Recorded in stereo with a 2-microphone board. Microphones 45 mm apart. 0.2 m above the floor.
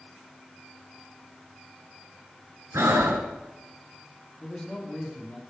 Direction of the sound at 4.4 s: 20° left (ahead or behind).